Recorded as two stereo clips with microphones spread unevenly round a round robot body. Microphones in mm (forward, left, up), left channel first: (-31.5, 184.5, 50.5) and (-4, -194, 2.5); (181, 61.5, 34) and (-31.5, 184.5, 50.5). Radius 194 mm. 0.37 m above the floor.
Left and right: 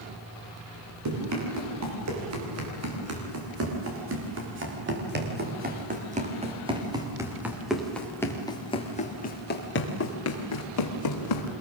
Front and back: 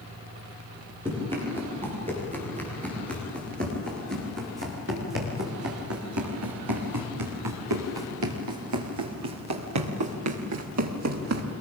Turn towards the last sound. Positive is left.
turn(degrees=135)